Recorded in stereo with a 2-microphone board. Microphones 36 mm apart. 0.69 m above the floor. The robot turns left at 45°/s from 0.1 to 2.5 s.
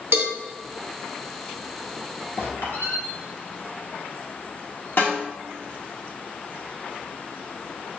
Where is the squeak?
65° left (ahead or behind), 1.5 m; by 3.0 s 60° left (ahead or behind), 1.5 m.